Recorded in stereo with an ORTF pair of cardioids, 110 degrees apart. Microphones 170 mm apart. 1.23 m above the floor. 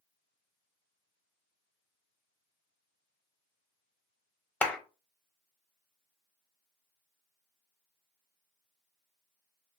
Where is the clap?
10° left, 0.9 m.